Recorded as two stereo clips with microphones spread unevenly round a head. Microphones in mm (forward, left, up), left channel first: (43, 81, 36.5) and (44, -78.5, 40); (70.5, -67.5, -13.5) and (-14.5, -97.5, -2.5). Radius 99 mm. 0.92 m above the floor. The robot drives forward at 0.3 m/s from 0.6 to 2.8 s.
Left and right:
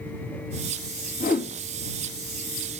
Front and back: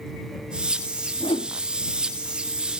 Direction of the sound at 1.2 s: 65° left.